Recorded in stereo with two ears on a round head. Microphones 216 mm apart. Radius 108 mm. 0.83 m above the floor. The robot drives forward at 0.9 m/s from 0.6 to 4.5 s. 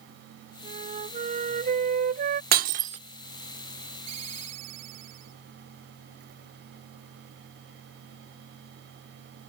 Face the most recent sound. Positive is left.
turn(degrees=-70)  # may be behind; listen again after turning